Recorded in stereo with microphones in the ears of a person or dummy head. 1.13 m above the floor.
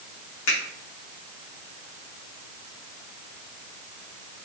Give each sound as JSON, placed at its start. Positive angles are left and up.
{"t": 0.5, "sound": "a finger snap", "side_deg": 65, "distance_m": 3.0}